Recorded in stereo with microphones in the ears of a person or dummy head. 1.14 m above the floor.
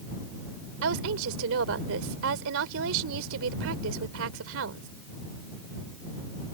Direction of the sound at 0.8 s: 75° right (ahead or behind).